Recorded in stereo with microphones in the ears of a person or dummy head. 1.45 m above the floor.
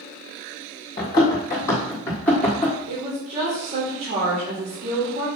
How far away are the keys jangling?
No keys jangling in this recording.